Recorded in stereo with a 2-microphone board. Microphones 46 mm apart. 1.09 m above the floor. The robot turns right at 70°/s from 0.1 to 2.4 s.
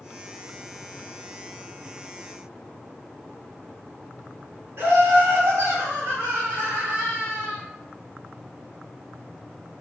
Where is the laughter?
60° right (ahead or behind), 2.0 m.